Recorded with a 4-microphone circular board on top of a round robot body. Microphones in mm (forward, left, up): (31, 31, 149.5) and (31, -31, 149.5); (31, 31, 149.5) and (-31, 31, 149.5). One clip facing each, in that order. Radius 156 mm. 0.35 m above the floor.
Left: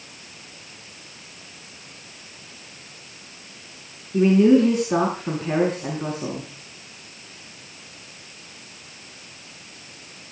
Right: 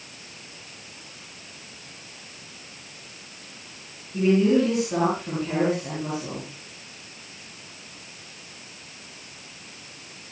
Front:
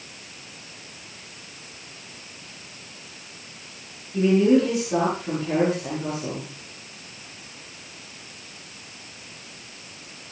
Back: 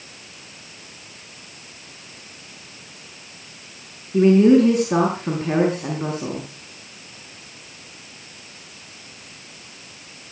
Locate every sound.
4.1 s a man speaking: 135° left, 6.5 m